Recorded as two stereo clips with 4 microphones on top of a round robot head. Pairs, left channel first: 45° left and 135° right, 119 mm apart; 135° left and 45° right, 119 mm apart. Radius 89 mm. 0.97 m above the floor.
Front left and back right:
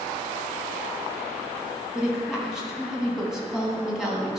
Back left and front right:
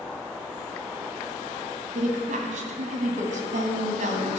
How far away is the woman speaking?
About 1.6 m.